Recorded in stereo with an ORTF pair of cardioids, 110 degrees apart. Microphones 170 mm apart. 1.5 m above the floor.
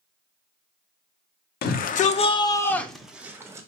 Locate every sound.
1.6 s a shout: 70° left, 0.8 m; by 3.7 s 20° right, 1.1 m